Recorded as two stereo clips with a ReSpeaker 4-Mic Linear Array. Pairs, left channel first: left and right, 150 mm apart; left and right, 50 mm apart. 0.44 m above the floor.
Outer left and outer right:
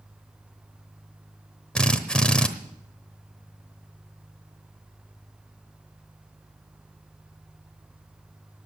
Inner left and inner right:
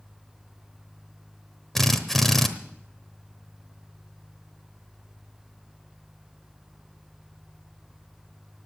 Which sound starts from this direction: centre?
A drill, at 1.8 s.